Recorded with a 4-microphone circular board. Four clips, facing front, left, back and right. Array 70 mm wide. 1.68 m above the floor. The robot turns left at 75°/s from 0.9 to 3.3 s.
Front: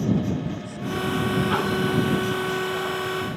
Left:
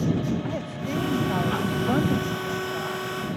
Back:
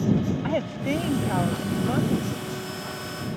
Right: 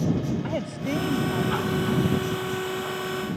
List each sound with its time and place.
0.4 s a woman speaking: 170° right; by 3.1 s 30° left